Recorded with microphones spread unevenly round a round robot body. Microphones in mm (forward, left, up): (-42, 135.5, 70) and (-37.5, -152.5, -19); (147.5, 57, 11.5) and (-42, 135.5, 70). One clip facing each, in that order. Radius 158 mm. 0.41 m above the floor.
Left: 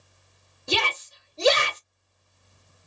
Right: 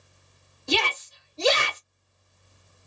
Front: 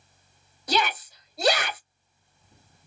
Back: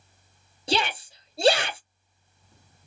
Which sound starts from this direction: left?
A shout, at 0.7 s.